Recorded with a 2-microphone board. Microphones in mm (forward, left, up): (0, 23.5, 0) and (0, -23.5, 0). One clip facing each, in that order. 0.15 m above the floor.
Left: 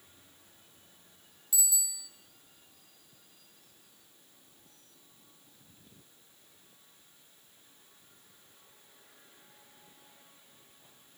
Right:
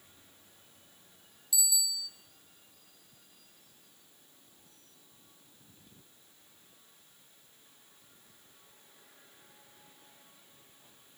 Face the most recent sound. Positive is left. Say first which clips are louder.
# right 3 dB
turn(degrees=35)  # may be behind; listen again after turning